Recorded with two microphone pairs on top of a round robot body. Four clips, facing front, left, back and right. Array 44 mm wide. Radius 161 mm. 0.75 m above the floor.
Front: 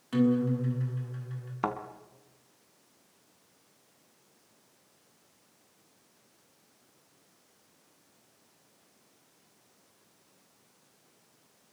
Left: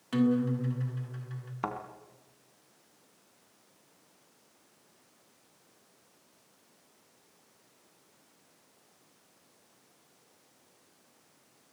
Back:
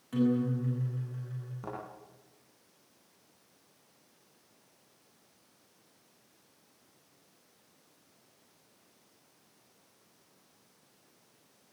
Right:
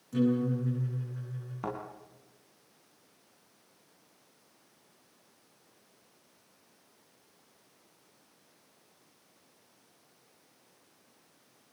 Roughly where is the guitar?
Left.